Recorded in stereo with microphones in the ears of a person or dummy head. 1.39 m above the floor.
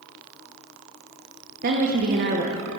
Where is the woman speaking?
45° right (ahead or behind), 0.8 m.